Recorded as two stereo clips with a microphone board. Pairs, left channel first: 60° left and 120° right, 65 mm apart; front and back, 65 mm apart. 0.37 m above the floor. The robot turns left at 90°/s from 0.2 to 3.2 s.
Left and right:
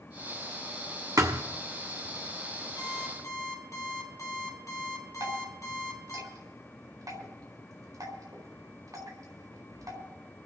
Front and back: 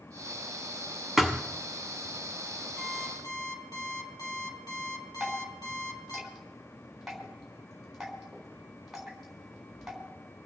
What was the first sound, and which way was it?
A thud, 95° right.